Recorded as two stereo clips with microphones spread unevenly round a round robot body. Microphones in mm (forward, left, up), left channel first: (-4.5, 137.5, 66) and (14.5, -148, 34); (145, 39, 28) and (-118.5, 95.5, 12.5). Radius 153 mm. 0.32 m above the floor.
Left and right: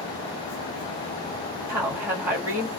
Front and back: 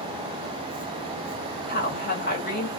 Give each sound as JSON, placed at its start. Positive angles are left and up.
{"t": 1.7, "sound": "a woman speaking", "azimuth_deg": -25, "distance_m": 1.5}